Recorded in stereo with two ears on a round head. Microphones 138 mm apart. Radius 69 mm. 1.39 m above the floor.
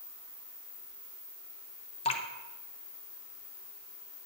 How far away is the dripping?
About 1.1 m.